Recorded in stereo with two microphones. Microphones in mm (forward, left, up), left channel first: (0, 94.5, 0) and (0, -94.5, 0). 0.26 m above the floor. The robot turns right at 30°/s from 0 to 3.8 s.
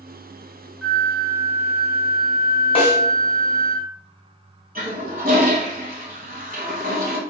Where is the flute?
Centre (ahead or behind), 1.1 m; by 3.8 s 30° left (ahead or behind), 1.1 m.